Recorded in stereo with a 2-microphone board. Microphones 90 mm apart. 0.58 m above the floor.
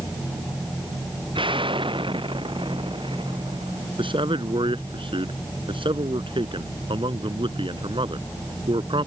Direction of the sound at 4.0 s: 75° right (ahead or behind).